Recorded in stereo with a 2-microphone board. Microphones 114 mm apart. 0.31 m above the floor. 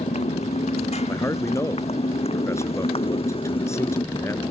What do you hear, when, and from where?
0.0 s a motorcycle: 70° left (ahead or behind); by 4.5 s 45° left (ahead or behind)
1.1 s a man speaking: 25° left (ahead or behind)